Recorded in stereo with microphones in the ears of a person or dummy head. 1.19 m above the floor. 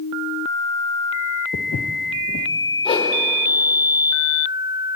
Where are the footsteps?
45° left (ahead or behind), 1.6 m.